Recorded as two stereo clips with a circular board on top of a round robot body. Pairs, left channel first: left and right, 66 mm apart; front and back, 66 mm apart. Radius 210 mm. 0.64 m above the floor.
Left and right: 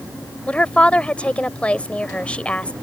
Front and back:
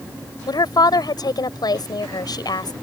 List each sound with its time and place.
0.5 s a woman speaking: 15° left